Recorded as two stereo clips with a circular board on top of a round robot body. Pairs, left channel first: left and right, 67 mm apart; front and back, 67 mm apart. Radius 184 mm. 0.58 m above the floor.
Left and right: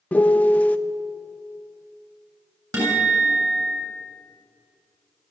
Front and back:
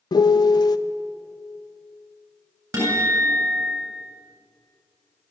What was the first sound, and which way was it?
A piano, 20° left.